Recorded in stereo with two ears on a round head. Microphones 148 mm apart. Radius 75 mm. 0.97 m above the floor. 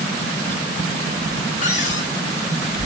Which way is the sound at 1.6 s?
50° left (ahead or behind).